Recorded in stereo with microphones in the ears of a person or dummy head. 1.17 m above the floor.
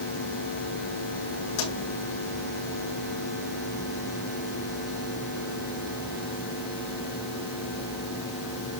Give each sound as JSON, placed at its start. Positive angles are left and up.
{"t": 1.6, "sound": "a pop", "side_deg": 75, "distance_m": 7.0}